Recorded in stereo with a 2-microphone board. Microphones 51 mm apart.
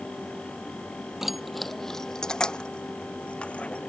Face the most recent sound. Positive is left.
turn(degrees=25)  # may be behind; listen again after turning